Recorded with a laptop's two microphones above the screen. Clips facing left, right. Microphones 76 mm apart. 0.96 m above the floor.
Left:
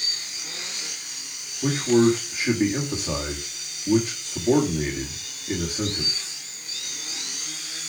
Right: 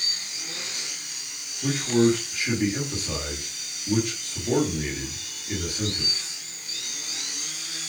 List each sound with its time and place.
1.6 s a man speaking: 25° left (ahead or behind), 2 m